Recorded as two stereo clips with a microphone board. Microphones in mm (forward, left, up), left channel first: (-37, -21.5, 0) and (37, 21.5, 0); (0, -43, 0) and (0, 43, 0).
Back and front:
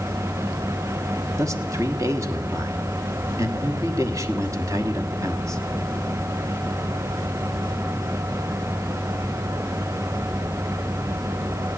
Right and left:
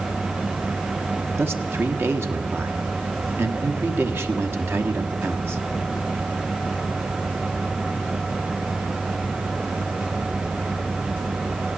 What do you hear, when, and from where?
1.4 s a man speaking: 45° left, 1.1 m